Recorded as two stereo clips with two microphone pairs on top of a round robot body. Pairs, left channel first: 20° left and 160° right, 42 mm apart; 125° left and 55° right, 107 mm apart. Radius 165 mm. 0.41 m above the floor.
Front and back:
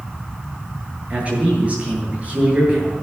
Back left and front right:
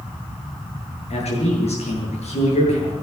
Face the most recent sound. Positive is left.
turn(degrees=140)